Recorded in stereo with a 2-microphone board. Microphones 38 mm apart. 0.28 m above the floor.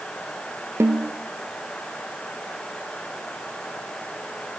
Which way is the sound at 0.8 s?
80° right.